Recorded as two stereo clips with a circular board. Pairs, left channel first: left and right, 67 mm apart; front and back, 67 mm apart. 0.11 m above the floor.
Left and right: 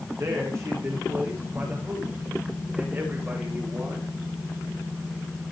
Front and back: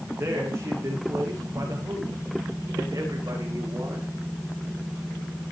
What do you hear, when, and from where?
0.2 s a man speaking: 130° right, 9 m; by 4.1 s 150° right, 11 m